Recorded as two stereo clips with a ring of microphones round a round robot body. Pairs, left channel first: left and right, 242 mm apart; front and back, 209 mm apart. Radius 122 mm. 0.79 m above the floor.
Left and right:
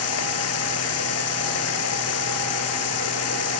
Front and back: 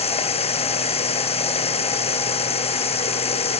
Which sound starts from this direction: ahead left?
Running water, at 0.0 s.